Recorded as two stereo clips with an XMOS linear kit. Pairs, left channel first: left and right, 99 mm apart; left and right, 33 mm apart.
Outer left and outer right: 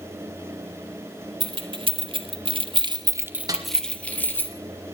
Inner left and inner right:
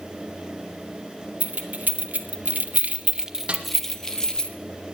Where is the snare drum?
35° right (ahead or behind), 1.7 m.